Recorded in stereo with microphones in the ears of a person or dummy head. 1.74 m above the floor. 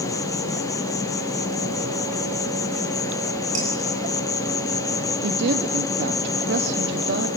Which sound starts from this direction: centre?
An insect, at 0.0 s.